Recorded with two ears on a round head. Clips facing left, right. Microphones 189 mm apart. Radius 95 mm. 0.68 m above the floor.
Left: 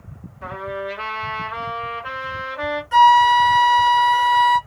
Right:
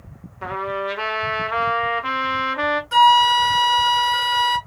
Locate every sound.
0.4 s a trumpet: 65° right (ahead or behind), 1.3 m
2.9 s a flute: 25° right (ahead or behind), 1.9 m